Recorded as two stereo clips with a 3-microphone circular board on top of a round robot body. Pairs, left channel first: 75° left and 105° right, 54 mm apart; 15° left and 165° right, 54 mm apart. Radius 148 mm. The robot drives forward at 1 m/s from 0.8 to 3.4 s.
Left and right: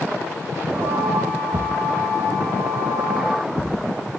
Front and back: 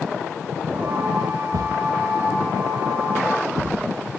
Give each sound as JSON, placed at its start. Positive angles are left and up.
{"t": 1.5, "sound": "a thud", "azimuth_deg": -145, "distance_m": 1.1}